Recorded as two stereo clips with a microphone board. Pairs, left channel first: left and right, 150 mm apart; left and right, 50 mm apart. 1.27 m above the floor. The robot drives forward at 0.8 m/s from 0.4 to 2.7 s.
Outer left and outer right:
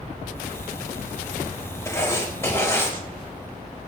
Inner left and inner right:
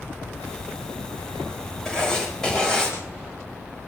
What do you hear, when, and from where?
1.9 s writing: 20° left (ahead or behind), 5 m; by 2.9 s 15° left (ahead or behind), 5.5 m